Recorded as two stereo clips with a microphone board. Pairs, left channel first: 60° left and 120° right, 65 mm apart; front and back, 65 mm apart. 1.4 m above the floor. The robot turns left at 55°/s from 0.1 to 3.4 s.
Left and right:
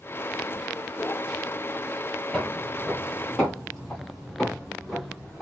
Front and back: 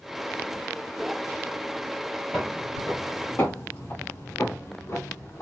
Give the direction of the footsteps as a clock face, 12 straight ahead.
10 o'clock.